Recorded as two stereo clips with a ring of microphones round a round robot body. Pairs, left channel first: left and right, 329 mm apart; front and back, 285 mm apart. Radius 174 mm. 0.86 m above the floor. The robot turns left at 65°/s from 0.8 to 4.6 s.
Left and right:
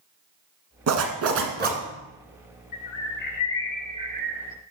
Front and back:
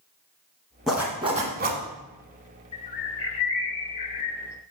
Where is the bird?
65° left, 0.6 m; by 4.5 s 50° right, 0.6 m.